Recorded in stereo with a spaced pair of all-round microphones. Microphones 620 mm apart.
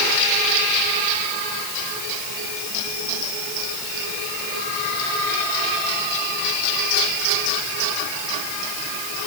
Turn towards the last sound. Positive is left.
No sound to turn to.